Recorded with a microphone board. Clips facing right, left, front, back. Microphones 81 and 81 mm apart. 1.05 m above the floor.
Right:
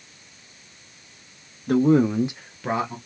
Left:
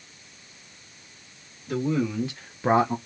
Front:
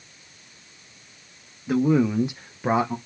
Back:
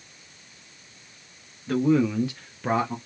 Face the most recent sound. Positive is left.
turn(degrees=75)